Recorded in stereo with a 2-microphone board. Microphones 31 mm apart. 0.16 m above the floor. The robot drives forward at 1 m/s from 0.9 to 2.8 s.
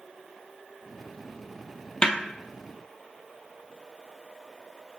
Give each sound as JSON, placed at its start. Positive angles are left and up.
{"t": 2.0, "sound": "a snare drum", "side_deg": 35, "distance_m": 0.9}